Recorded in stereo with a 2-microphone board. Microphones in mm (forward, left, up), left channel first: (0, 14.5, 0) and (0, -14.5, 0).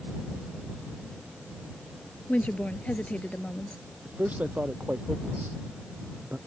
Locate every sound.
2.3 s a woman speaking: 50° left (ahead or behind)
4.0 s a man speaking: 65° right (ahead or behind)